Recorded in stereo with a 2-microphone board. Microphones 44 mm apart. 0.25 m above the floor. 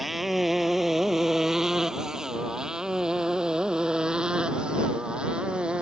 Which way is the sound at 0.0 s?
5° right (ahead or behind).